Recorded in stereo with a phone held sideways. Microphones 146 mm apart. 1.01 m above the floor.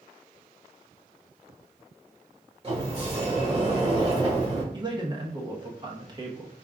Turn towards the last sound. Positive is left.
turn(degrees=-30)  # may be behind; listen again after turning